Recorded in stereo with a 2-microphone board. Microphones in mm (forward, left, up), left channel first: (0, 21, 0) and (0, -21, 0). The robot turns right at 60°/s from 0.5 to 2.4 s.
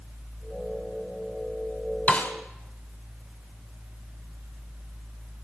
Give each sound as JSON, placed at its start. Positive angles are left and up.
{"t": 2.1, "sound": "a snare drum", "side_deg": 40, "distance_m": 2.5}